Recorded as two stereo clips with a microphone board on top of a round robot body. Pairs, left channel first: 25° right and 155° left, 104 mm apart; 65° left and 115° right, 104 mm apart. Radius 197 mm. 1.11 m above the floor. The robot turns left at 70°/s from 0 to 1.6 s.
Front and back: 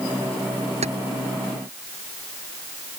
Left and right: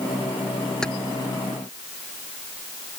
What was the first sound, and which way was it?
Keys jangling, 150° left.